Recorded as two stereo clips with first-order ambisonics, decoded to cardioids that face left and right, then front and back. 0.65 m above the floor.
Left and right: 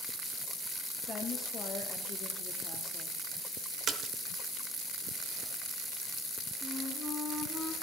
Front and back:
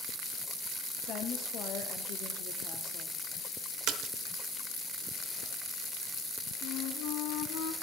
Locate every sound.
1.1 s a woman speaking: 30° left, 0.8 m
3.9 s a splash: 145° right, 0.8 m
6.6 s a flute: 5° right, 0.7 m